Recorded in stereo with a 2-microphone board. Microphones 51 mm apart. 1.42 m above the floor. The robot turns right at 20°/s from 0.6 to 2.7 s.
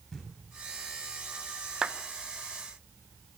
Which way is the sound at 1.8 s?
15° right (ahead or behind).